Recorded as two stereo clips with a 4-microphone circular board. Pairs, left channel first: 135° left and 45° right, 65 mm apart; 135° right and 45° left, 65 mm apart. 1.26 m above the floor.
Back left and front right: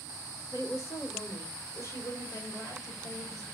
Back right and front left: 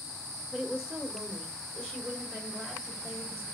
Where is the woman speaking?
120° left, 2.5 m.